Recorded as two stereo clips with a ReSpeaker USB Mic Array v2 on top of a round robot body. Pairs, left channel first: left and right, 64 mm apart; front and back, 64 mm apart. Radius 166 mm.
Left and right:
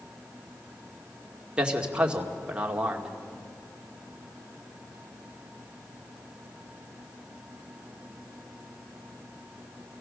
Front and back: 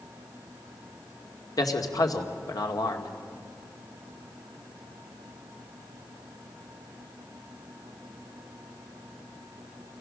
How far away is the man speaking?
About 2 m.